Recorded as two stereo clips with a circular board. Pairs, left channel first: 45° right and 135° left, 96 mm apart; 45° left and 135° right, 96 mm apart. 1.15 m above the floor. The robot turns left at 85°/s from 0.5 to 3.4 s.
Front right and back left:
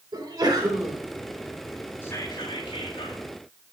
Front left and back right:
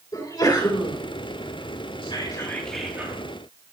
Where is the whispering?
20° left, 3 m; by 3.2 s 85° right, 3 m.